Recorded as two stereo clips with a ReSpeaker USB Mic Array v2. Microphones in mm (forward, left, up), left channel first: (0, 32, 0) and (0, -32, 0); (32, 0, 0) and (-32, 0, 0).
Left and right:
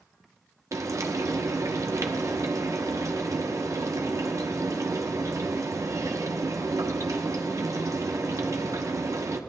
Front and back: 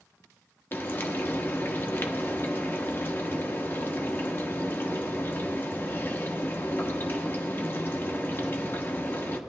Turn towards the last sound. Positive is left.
turn(degrees=-55)